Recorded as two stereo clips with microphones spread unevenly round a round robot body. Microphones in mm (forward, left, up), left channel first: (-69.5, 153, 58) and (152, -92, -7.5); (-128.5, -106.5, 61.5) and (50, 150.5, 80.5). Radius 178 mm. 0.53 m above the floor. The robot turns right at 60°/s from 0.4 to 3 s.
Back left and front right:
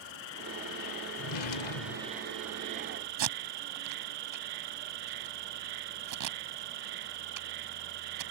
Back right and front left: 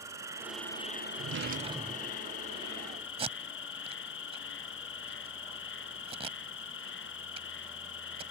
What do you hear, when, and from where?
0.0 s an insect: 135° left; by 8.3 s 70° right
1.2 s a drawer: 100° left; by 2.2 s 165° left
3.2 s tape being pulled: 20° right